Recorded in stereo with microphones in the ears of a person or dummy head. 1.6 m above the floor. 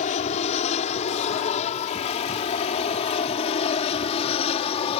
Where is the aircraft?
45° left (ahead or behind); by 5.0 s 35° left (ahead or behind).